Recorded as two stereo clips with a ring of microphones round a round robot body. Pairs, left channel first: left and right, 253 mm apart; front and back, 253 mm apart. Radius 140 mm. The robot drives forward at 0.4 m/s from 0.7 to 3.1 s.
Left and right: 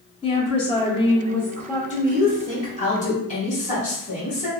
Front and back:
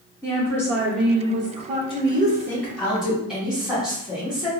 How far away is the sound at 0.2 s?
About 0.7 m.